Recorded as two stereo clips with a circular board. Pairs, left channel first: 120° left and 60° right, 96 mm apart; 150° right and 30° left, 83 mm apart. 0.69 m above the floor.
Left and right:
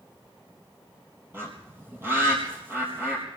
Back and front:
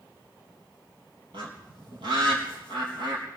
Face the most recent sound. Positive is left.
turn(degrees=5)